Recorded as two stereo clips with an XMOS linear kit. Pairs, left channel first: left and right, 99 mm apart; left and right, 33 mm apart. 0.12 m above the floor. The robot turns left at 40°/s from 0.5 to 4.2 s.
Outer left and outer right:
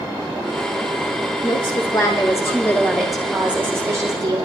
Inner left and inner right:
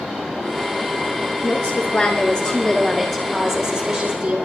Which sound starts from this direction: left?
A woman speaking, at 1.4 s.